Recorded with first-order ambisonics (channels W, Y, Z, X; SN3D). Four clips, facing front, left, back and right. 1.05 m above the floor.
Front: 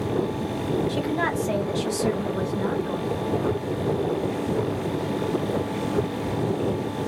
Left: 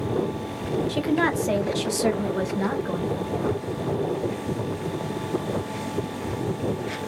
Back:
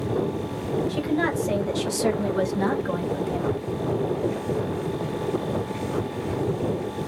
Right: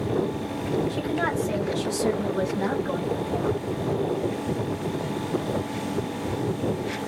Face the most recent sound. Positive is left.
turn(degrees=-175)